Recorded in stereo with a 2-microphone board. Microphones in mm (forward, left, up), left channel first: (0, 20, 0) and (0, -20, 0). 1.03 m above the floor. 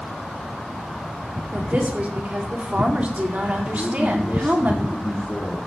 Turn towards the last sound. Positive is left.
turn(degrees=25)  # may be behind; listen again after turning